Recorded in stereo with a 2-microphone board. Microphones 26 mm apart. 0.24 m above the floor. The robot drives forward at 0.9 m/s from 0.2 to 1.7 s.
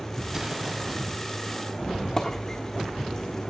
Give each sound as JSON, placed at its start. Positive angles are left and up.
{"t": 0.2, "sound": "an explosion", "side_deg": -25, "distance_m": 1.1}
{"t": 1.8, "sound": "a squeak", "side_deg": 20, "distance_m": 1.4}